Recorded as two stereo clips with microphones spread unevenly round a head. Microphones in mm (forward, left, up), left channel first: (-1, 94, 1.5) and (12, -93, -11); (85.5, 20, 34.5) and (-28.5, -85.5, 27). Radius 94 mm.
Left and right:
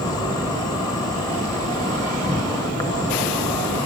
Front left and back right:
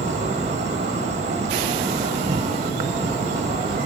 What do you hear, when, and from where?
0.0 s an insect: 165° left, 1.1 m